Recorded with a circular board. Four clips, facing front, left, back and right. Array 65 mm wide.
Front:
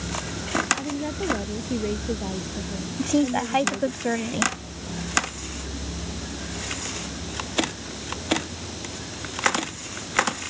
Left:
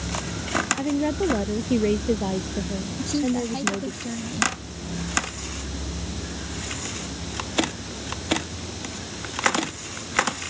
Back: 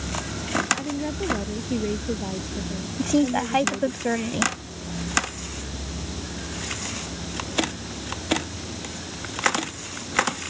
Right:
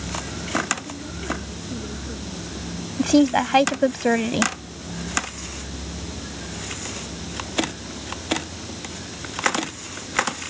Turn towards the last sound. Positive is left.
turn(degrees=-90)